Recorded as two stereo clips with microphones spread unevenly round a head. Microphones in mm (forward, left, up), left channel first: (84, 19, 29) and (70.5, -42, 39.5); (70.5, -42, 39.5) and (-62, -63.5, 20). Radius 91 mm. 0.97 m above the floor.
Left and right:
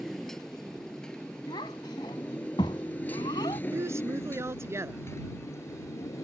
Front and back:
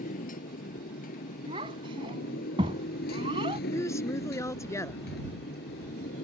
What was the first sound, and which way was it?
A motorcycle, 10° right.